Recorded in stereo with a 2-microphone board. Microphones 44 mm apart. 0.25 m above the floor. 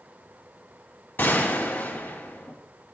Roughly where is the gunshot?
Left.